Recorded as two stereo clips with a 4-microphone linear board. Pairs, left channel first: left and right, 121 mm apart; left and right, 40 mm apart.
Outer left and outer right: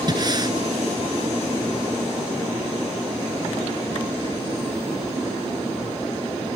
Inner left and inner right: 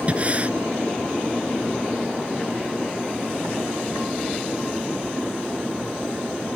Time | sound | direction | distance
0.1 | breathing | 35° right (ahead or behind) | ?